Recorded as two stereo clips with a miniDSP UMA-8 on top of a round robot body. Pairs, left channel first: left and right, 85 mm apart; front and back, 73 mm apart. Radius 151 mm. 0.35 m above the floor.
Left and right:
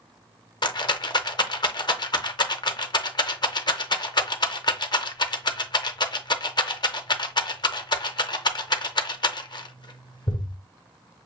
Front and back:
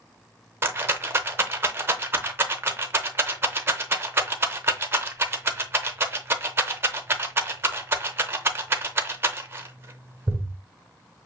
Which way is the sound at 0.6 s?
120° left.